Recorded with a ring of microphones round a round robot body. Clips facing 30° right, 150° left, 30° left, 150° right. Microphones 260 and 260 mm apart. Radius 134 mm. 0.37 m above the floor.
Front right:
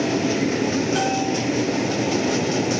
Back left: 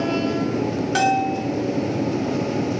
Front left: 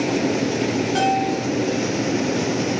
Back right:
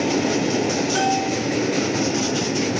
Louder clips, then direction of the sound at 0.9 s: Front right 1 dB, front left 1 dB; 140° left.